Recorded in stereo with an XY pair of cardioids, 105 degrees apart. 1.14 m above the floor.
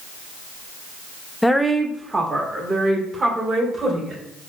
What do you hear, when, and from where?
1.4 s a woman speaking: 10° left, 0.6 m; by 4.2 s 40° right, 3 m